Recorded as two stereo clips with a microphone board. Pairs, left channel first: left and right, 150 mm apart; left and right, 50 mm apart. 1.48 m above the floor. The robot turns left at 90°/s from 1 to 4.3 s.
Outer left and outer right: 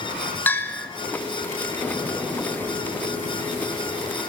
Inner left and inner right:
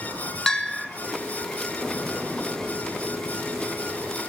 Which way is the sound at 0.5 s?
15° left (ahead or behind).